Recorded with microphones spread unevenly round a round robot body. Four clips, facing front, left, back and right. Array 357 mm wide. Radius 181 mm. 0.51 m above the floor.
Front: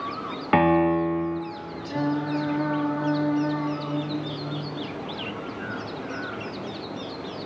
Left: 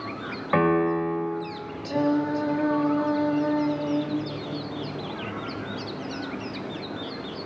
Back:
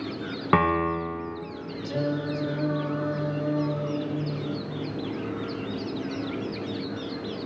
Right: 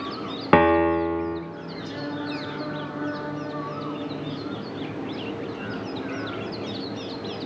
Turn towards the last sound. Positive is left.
turn(degrees=160)